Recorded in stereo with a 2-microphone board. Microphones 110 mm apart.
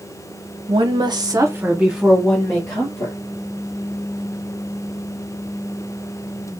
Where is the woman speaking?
55° right (ahead or behind), 0.9 m; by 3.2 s 20° left (ahead or behind), 1.4 m.